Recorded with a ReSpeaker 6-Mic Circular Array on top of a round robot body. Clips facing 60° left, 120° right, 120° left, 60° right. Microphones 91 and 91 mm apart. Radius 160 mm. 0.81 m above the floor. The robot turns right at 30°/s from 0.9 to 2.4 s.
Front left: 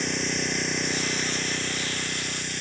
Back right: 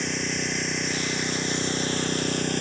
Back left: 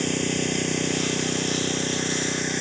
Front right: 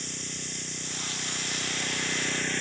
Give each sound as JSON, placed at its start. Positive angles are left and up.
{"t": 0.0, "sound": "an engine running", "azimuth_deg": 150}